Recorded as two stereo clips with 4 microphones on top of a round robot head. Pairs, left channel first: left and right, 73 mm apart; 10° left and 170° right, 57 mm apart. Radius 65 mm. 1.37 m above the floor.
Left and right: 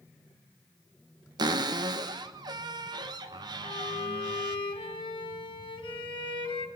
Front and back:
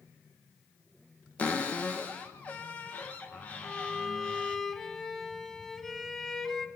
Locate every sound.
1.4 s a cupboard door: 60° right, 1.1 m
3.6 s a violin: 90° left, 2.5 m